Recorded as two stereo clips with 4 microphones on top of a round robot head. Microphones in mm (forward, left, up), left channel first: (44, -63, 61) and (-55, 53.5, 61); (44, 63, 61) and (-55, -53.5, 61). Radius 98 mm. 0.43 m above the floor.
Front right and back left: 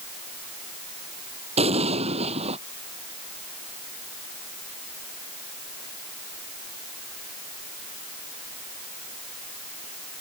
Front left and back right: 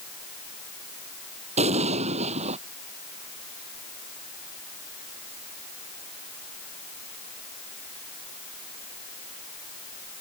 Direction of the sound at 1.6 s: Straight behind.